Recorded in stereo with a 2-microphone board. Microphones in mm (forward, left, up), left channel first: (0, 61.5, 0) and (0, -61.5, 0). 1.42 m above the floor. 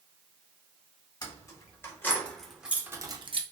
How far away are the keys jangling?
About 1.2 m.